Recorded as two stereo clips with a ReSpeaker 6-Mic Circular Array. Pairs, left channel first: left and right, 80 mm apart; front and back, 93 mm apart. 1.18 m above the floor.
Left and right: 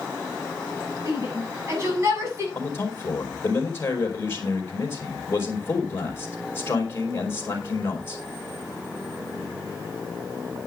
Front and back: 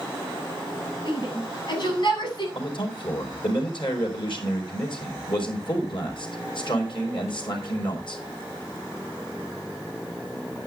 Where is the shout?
35° right, 7.5 m; by 2.5 s 40° right, 8 m.